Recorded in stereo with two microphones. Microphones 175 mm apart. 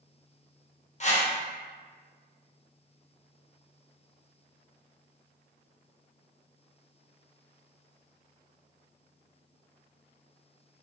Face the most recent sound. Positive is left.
turn(degrees=40)  # may be behind; listen again after turning